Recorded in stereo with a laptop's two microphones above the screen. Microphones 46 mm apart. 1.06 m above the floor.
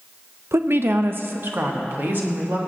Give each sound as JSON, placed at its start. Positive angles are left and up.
{"t": 0.5, "sound": "a woman speaking", "side_deg": -55, "distance_m": 0.5}